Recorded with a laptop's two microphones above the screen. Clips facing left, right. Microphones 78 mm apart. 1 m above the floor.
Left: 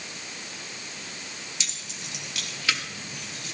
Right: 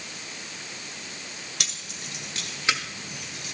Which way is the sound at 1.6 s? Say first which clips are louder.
Right 1 dB; 60° right (ahead or behind).